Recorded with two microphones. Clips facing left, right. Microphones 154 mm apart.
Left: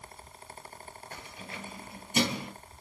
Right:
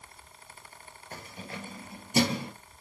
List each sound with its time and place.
1.1 s keys jangling: 45° right (ahead or behind), 2 m; by 2.5 s 35° right (ahead or behind), 2.5 m